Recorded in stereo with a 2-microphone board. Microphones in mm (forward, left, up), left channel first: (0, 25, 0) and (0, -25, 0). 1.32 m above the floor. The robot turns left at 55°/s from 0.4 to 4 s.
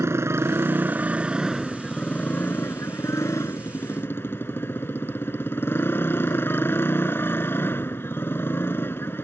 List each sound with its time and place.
0.0 s a motorcycle: 110° right; by 9.2 s 50° left